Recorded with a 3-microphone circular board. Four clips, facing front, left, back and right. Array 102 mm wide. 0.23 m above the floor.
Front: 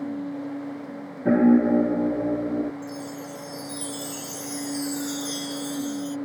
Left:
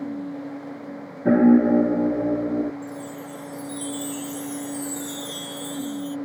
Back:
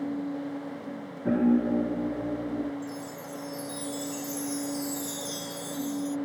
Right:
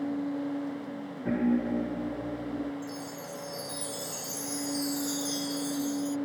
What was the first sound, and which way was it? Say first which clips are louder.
A piano: left 12 dB, front 6 dB; 65° left.